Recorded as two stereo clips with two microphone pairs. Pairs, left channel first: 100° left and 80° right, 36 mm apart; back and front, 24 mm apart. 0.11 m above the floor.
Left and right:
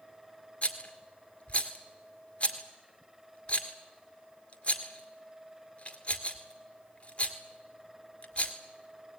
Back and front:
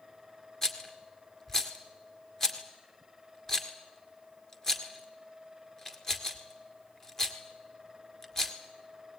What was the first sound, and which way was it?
A rattle, 120° left.